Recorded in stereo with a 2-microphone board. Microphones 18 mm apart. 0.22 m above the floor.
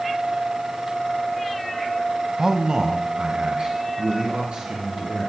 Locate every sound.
2.4 s a man speaking: 20° right (ahead or behind), 1.1 m; by 5.3 s 75° right (ahead or behind), 4.5 m